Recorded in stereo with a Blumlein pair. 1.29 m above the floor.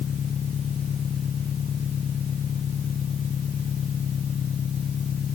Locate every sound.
0.0 s an engine running: 20° left